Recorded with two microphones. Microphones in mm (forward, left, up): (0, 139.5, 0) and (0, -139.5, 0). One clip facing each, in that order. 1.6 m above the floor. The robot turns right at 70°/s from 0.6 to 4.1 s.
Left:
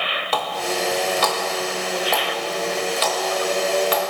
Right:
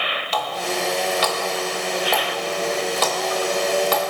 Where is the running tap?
65° left (ahead or behind), 1.5 m; by 4.0 s 45° right (ahead or behind), 1.5 m.